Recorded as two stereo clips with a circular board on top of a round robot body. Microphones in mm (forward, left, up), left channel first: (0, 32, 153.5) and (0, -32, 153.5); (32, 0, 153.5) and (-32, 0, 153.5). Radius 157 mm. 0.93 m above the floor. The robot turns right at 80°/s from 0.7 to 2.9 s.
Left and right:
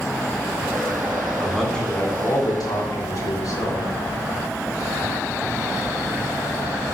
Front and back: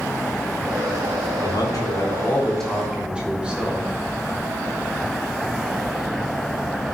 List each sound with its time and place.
1.4 s a man speaking: 15° right, 4 m; by 3.9 s 105° left, 4 m